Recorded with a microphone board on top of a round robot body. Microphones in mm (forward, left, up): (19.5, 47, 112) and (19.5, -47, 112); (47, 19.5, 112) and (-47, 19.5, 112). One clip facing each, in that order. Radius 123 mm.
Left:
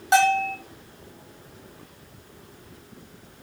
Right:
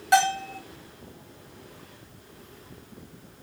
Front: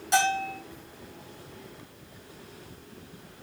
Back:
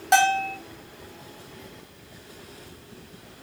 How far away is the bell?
About 1.1 m.